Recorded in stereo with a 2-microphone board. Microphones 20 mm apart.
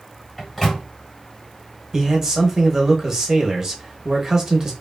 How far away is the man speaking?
About 0.9 m.